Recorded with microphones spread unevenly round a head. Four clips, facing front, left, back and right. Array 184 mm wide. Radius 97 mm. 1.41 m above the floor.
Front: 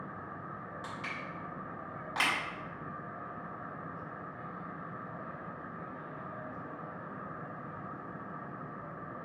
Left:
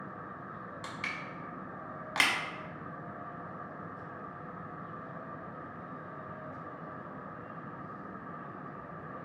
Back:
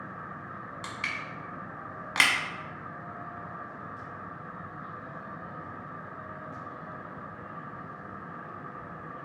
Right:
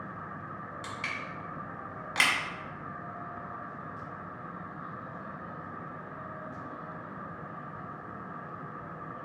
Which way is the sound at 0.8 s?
170° left.